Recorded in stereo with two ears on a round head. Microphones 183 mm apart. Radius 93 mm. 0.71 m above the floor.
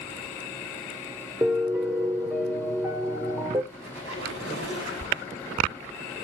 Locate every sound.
1.4 s a piano: 10° right (ahead or behind), 1.6 m
3.7 s a squeak: 55° right (ahead or behind), 5 m